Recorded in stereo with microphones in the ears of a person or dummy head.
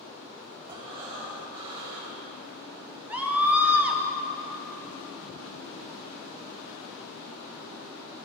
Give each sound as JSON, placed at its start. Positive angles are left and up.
{"t": 0.7, "sound": "breathing", "side_deg": -35, "distance_m": 4.0}
{"t": 3.1, "sound": "a scream", "side_deg": -10, "distance_m": 1.5}